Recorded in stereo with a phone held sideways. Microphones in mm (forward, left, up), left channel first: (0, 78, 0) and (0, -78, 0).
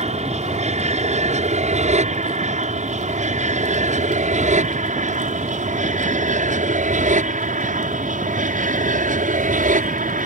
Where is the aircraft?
45° right (ahead or behind); by 10.3 s 60° right (ahead or behind).